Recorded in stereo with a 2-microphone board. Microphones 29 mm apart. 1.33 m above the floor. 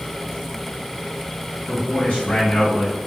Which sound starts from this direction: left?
A man speaking, at 1.7 s.